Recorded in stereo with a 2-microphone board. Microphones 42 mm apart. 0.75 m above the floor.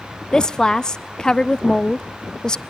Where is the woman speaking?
20° left (ahead or behind), 0.5 m.